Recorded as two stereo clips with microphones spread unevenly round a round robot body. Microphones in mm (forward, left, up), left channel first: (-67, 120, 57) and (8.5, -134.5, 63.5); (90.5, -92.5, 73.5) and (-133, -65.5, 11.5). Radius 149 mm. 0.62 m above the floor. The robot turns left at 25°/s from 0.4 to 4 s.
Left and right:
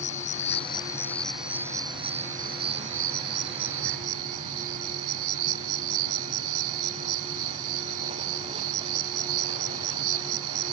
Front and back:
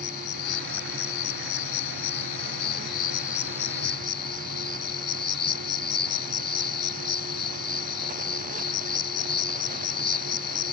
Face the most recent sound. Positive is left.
turn(degrees=-50)